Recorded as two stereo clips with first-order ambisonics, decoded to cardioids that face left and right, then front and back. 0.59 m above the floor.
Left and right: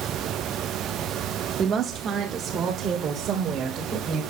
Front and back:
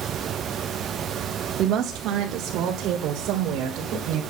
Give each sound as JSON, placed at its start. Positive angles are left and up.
{"t": 1.6, "sound": "a woman speaking", "azimuth_deg": -145, "distance_m": 0.9}